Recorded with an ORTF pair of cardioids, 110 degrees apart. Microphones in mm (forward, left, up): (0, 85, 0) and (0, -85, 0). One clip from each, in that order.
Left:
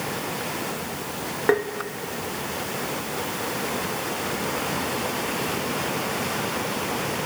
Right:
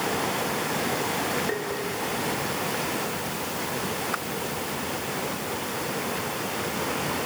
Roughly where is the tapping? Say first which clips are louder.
Left 8 dB; ahead left.